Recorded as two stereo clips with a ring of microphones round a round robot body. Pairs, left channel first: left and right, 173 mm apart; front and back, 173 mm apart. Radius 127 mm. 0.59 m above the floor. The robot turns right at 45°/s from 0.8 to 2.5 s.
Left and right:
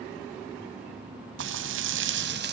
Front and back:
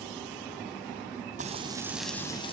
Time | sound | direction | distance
1.4 | frying | 120° right | 2 m